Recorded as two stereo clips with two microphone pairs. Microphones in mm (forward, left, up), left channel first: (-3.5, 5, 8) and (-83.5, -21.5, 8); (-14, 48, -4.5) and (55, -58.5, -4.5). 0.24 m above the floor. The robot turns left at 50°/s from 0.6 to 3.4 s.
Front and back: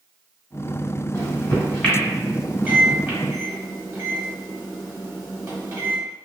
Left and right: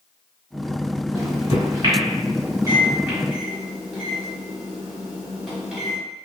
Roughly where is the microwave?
Ahead.